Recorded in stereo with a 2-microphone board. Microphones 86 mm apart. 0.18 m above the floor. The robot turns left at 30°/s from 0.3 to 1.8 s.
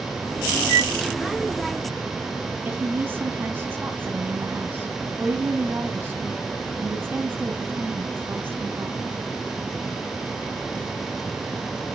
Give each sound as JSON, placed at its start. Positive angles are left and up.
{"t": 0.7, "sound": "a flute", "side_deg": 30, "distance_m": 6.0}
{"t": 2.6, "sound": "a woman speaking", "side_deg": -25, "distance_m": 1.1}